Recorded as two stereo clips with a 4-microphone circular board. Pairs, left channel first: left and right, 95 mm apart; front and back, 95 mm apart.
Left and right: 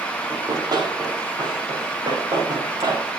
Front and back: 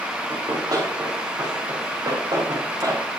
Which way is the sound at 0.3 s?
135° right.